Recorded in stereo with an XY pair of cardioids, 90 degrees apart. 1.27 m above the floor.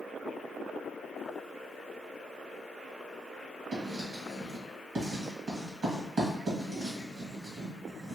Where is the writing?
65° right, 1.8 m.